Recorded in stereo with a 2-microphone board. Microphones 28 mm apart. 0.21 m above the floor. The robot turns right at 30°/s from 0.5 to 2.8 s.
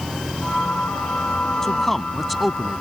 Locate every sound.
1.6 s a man speaking: 160° left; by 2.8 s 165° right